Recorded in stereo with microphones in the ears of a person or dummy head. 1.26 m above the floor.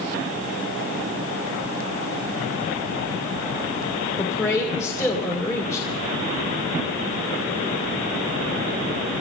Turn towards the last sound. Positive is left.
turn(degrees=20)  # may be behind; listen again after turning